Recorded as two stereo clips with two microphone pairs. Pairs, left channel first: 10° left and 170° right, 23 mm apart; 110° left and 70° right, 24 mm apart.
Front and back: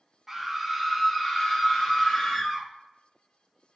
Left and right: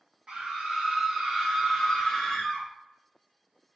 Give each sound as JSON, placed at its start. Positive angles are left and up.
{"t": 0.3, "sound": "a scream", "azimuth_deg": -90, "distance_m": 0.9}